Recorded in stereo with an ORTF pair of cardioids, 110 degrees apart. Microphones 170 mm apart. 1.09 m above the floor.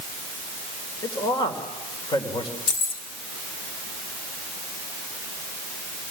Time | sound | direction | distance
1.0 | a man speaking | 25° left | 4 m
2.7 | keys jangling | 50° left | 2.0 m